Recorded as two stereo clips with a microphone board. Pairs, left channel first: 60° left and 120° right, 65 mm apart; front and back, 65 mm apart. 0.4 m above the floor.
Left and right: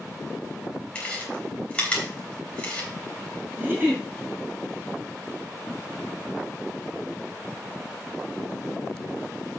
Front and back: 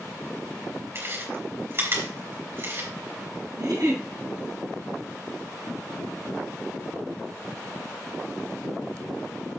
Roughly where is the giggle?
Behind.